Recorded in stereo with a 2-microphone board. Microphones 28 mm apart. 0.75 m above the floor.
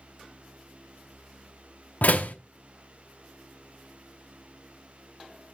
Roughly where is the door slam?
Left.